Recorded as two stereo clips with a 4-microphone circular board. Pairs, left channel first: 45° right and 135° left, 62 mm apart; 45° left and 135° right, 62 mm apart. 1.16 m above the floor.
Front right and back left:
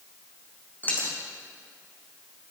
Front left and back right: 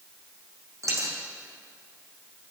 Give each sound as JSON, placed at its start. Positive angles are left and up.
{"t": 0.8, "sound": "a dropped coin", "azimuth_deg": -110, "distance_m": 4.0}